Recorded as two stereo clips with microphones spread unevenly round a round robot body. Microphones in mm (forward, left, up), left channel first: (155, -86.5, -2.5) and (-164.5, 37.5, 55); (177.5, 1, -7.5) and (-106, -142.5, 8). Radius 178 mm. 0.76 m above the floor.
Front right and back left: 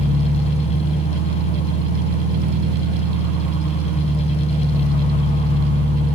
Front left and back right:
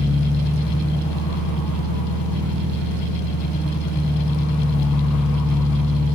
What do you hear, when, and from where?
0.0 s an engine running: 50° right, 1.3 m